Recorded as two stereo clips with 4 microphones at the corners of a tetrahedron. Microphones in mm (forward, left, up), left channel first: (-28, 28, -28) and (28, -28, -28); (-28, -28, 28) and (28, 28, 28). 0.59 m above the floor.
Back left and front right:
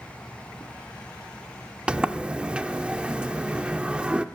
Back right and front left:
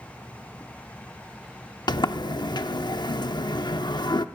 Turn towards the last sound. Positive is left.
turn(degrees=-120)